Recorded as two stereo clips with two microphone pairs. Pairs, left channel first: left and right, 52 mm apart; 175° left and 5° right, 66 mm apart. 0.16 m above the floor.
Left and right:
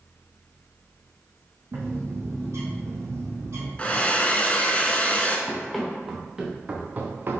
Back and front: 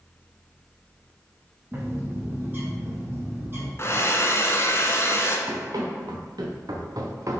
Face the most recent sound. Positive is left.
turn(degrees=-45)